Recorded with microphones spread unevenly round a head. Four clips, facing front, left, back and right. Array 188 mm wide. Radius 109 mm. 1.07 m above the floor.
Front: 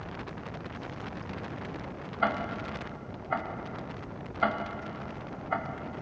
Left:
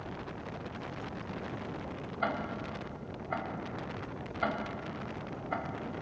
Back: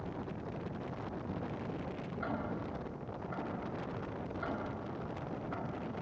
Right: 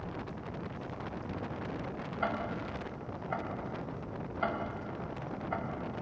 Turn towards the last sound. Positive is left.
turn(degrees=5)